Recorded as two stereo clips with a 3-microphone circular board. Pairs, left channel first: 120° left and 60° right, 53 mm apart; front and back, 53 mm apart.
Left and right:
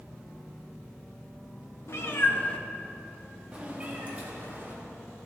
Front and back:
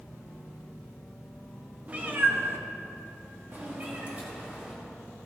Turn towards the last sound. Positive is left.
turn(degrees=-115)